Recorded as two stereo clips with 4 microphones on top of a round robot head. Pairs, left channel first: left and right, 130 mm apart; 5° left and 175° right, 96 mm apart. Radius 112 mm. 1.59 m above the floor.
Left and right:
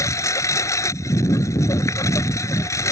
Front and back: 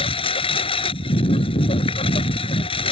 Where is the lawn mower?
25° left.